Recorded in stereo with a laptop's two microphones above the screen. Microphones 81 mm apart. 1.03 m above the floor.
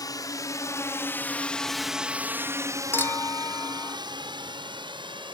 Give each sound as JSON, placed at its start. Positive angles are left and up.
{"t": 0.0, "sound": "a drone", "side_deg": 50}
{"t": 2.9, "sound": "a clink", "side_deg": 30}